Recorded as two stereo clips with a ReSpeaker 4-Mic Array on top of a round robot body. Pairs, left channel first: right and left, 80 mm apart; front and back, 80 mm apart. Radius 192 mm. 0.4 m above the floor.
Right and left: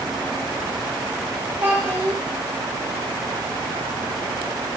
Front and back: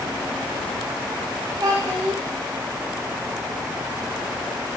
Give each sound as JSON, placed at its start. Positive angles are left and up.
{"t": 1.6, "sound": "a child speaking", "azimuth_deg": 150, "distance_m": 1.9}